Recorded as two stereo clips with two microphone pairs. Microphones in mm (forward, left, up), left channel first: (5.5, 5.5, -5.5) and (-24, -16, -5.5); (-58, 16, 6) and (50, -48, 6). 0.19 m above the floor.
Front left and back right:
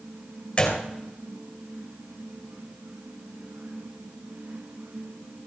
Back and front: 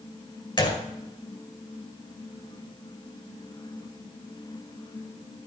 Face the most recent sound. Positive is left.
turn(degrees=100)